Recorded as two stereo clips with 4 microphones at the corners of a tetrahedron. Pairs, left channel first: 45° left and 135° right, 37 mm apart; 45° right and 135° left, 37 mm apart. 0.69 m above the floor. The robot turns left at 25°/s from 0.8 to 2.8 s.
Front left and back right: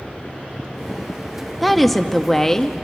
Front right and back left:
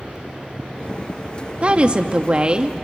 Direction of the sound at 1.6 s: 135° left.